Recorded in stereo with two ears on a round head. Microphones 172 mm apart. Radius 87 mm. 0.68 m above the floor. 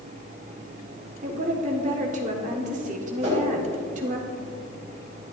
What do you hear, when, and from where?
1.2 s a woman speaking: 40° right (ahead or behind), 1.4 m
3.2 s a whoosh: 35° right (ahead or behind), 2.5 m